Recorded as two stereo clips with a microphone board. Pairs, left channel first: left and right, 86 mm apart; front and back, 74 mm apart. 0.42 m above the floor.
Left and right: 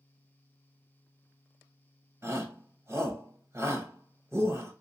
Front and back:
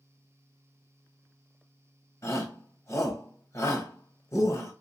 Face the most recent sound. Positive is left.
turn(degrees=-35)